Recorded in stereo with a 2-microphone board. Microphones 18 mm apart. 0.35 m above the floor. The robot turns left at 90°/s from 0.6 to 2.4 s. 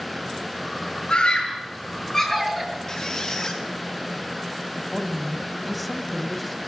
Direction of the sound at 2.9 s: 40° left (ahead or behind).